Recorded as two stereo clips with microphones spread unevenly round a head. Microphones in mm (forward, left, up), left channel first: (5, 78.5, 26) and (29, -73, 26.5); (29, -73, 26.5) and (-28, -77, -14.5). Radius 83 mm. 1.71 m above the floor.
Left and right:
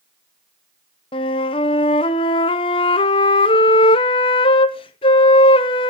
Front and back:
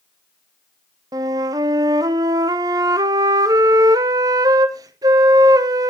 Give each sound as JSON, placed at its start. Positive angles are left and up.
{"t": 1.1, "sound": "a flute", "azimuth_deg": 115, "distance_m": 0.7}